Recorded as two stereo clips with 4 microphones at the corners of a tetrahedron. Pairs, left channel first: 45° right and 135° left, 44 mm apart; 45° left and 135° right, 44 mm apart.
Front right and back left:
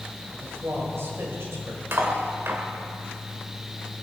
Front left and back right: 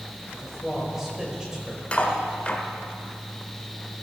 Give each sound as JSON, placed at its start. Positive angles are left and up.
{"t": 0.3, "sound": "a man speaking", "azimuth_deg": 135, "distance_m": 5.5}
{"t": 1.9, "sound": "cutlery clinking", "azimuth_deg": 105, "distance_m": 2.0}